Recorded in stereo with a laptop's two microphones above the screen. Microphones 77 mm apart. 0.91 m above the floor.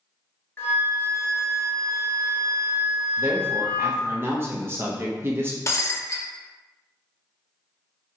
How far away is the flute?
About 1.2 m.